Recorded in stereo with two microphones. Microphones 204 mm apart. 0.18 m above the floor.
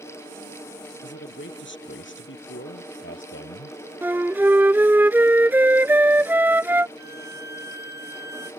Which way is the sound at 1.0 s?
65° left (ahead or behind).